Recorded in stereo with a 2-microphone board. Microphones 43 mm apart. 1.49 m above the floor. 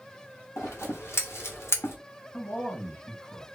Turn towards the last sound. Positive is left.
turn(degrees=50)  # may be behind; listen again after turning